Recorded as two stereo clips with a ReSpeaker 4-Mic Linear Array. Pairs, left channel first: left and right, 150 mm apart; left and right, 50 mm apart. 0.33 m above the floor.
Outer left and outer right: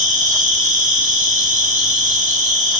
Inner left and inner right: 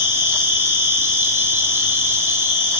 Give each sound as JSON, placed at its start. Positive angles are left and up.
{"t": 0.0, "sound": "an insect", "side_deg": -55, "distance_m": 1.3}